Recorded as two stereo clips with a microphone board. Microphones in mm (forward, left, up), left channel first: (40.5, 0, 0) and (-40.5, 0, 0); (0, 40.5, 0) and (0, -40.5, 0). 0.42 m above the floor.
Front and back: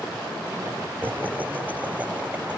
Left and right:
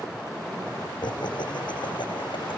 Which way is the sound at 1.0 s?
115° left.